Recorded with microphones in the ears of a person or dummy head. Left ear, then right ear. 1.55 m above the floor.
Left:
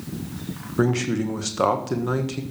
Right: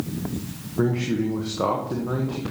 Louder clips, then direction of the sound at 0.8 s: Left 1 dB; 75° left (ahead or behind).